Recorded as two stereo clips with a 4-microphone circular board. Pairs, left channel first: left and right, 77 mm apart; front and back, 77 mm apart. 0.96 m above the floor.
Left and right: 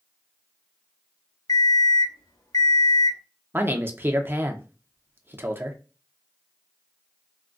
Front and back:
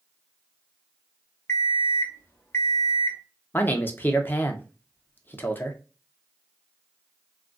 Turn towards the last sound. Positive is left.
turn(degrees=-50)